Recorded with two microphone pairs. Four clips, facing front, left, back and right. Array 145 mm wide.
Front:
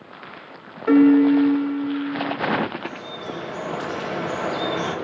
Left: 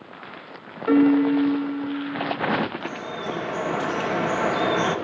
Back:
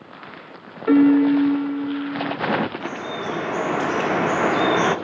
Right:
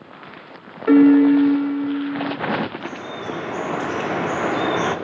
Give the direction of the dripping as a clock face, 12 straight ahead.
5 o'clock.